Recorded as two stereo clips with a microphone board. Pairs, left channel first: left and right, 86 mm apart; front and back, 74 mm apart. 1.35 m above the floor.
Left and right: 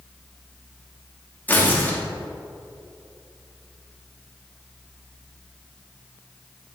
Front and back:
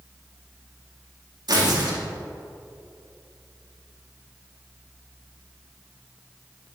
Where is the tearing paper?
160° left, 2.5 m.